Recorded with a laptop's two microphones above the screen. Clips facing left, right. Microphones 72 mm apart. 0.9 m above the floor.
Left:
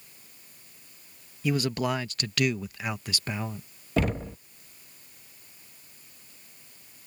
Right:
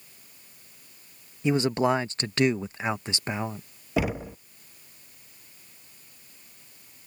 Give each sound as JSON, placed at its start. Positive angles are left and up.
{"t": 1.4, "sound": "a man speaking", "side_deg": -25}
{"t": 4.0, "sound": "knocking", "side_deg": -5}